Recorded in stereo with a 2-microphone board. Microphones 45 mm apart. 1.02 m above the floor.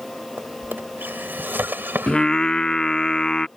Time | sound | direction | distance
0.4 | a drawer | 55° right (ahead or behind) | ?
2.1 | singing | 15° left (ahead or behind) | ?